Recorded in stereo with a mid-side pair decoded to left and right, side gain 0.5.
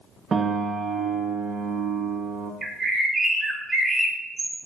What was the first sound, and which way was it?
A piano, 40° right.